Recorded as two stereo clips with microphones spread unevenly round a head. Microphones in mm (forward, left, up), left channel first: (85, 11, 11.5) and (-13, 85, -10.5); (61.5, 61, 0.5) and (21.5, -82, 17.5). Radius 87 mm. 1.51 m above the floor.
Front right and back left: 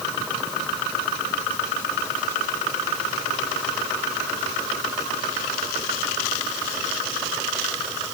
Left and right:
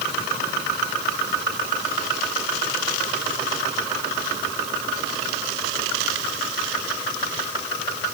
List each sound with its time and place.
Only background noise.